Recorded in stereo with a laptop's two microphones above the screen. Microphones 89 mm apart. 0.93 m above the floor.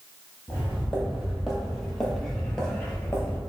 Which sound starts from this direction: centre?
Footsteps, at 0.5 s.